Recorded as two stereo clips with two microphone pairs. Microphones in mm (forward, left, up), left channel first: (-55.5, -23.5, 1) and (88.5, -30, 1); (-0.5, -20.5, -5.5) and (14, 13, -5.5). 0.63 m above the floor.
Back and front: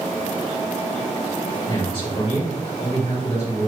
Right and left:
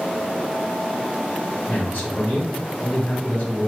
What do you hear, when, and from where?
1.7 s a man speaking: 135° right, 2.5 m